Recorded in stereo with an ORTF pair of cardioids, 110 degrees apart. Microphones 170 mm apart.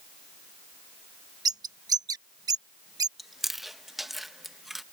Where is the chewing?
Straight ahead.